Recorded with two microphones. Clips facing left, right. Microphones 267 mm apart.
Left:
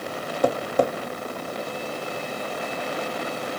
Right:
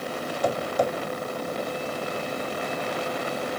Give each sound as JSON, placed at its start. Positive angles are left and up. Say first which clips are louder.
{"t": 0.4, "sound": "tapping", "louder": "left 4 dB", "side_deg": 65, "distance_m": 1.0}